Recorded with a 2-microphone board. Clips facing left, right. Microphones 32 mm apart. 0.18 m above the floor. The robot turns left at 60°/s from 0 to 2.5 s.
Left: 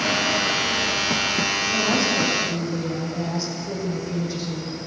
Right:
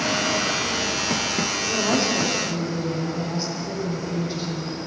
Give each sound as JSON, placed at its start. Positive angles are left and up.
{"t": 1.6, "sound": "a woman speaking", "azimuth_deg": -115, "distance_m": 8.5}